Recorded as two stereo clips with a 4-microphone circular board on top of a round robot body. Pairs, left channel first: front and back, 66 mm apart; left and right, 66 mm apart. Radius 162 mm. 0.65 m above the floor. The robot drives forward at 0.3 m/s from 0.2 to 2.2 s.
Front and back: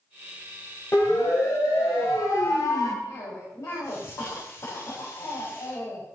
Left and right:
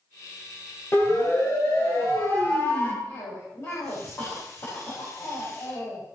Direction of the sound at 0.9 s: 45° left.